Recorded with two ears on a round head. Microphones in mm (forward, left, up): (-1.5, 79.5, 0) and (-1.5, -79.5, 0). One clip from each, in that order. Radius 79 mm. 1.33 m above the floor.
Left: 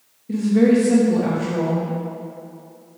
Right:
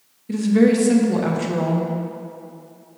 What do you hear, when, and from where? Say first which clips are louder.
0.3 s a woman speaking: even; 40° right (ahead or behind), 1.3 m